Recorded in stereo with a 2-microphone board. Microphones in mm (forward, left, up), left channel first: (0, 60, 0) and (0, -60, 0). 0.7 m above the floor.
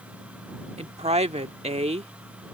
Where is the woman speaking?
70° right (ahead or behind).